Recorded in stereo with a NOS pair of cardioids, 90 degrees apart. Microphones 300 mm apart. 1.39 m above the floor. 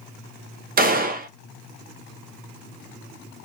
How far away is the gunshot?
About 0.5 m.